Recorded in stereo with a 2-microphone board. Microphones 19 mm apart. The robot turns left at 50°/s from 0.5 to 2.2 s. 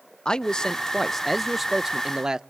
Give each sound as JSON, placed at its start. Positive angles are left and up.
{"t": 0.2, "sound": "a man speaking", "azimuth_deg": 50, "distance_m": 0.5}